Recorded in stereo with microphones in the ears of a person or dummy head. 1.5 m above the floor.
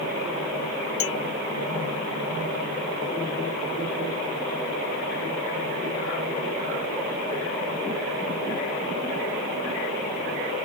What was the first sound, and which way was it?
A clink, 65° left (ahead or behind).